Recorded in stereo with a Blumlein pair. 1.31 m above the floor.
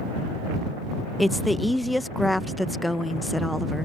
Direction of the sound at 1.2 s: 5° left.